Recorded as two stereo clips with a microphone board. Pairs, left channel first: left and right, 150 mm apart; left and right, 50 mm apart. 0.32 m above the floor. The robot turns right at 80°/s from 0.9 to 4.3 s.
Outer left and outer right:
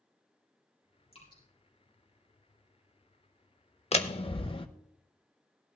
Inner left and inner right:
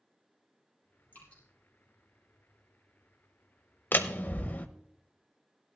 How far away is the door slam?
About 0.7 m.